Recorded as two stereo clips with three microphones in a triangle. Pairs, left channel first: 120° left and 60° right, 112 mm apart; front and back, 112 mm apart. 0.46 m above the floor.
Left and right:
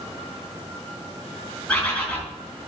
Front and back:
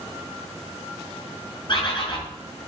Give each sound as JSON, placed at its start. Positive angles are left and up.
{"t": 1.7, "sound": "a bird", "azimuth_deg": 40, "distance_m": 3.5}